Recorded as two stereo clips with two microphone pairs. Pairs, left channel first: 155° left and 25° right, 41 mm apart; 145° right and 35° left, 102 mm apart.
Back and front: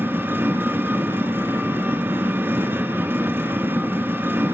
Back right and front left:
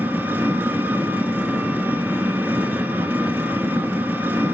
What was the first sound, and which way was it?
An engine running, 35° right.